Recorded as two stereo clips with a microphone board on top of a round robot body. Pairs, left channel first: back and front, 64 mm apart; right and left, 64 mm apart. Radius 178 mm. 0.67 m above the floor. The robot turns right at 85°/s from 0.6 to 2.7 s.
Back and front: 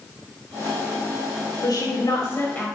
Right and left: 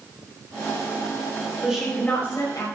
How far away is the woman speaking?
About 5.5 m.